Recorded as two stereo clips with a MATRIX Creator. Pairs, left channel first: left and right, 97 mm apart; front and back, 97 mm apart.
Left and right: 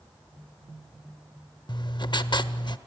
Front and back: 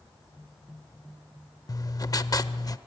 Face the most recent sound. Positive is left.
turn(degrees=50)